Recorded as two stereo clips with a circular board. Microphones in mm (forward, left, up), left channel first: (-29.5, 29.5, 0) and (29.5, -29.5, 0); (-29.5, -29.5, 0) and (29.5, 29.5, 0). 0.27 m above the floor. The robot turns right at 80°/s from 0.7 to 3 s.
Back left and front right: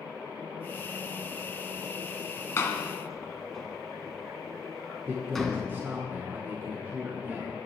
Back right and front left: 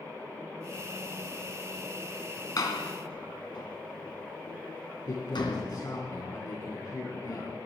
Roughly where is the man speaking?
Right.